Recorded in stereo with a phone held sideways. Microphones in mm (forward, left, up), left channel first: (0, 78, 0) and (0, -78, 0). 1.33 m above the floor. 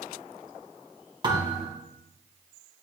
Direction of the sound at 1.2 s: 30° right (ahead or behind).